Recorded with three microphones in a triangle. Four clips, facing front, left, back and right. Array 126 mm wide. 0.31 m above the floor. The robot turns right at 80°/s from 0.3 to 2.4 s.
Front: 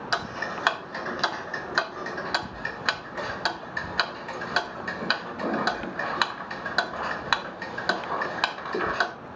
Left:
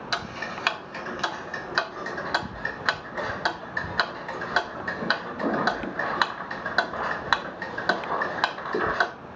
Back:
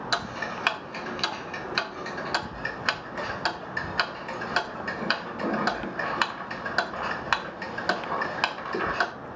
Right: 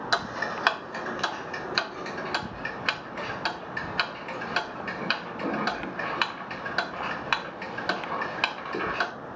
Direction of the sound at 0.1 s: 75° right.